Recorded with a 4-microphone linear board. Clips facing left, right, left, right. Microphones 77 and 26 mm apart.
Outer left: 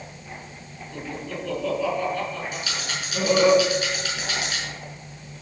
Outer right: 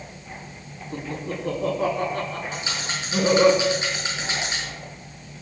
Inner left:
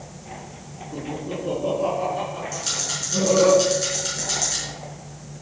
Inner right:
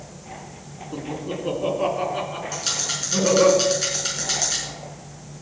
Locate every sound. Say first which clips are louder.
0.9 s laughter: outer right 2 dB, even; 35° right (ahead or behind), 4 m; by 3.5 s 60° right (ahead or behind), 4.5 m
2.5 s a rattle: outer right 1 dB, inner right 1 dB; 25° right (ahead or behind), 5 m